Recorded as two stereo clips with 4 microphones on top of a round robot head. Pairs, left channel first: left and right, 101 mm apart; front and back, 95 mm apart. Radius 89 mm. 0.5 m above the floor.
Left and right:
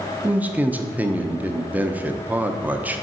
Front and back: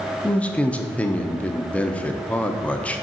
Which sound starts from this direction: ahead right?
A man speaking, at 0.2 s.